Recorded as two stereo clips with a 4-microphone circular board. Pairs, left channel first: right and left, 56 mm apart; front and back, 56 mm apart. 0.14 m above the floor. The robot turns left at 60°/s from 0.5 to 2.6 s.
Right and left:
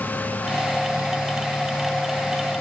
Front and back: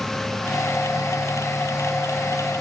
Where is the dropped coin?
I don't hear a dropped coin.